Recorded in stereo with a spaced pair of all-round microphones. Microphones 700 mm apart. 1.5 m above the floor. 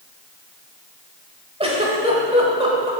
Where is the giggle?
10° right (ahead or behind), 1.3 m.